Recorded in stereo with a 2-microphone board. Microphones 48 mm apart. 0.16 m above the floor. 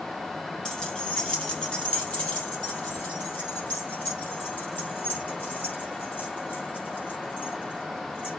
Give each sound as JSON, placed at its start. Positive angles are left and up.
{"t": 0.7, "sound": "keys jangling", "side_deg": 15, "distance_m": 2.5}